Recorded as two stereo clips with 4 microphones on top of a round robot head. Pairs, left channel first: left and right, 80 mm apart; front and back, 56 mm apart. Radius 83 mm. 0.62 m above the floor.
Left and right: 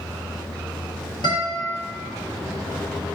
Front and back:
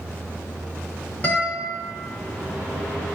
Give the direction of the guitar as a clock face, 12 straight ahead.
10 o'clock.